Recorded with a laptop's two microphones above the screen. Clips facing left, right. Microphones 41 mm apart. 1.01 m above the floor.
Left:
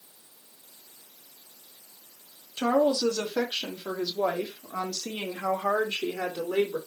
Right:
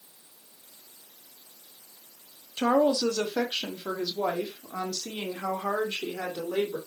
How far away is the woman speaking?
About 1.4 m.